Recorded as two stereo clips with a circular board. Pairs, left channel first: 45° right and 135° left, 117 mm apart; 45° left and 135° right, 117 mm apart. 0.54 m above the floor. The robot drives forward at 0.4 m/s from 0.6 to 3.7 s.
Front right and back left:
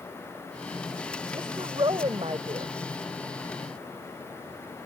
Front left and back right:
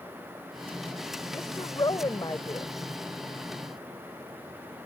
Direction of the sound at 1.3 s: 90° left.